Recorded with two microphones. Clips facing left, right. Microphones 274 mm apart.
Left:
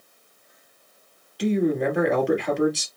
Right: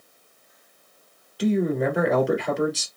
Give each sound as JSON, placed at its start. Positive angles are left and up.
{"t": 1.4, "sound": "a man speaking", "side_deg": 0, "distance_m": 1.8}